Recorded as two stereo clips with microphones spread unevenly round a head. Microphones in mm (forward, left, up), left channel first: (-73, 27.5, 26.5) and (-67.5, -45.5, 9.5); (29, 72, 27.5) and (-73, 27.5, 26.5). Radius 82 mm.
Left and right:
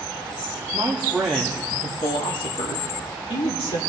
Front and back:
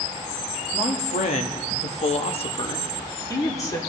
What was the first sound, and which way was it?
A man speaking, 20° right.